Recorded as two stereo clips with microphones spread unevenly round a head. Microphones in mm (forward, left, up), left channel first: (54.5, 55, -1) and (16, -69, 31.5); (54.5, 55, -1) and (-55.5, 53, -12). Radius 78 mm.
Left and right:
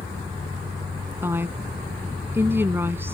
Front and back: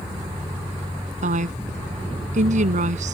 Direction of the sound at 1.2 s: 175° left.